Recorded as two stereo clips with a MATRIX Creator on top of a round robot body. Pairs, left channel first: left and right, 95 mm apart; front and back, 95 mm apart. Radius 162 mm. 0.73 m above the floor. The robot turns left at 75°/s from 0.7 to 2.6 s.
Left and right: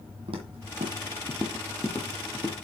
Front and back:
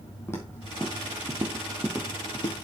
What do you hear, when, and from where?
0.3 s footsteps: 65° right, 1.2 m; by 2.6 s 5° right, 1.0 m